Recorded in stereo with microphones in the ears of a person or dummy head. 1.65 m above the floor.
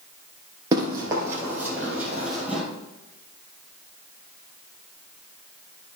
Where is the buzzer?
No buzzer in this recording.